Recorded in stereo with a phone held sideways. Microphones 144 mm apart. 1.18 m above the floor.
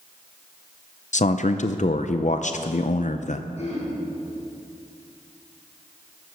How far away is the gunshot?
No gunshot in this recording.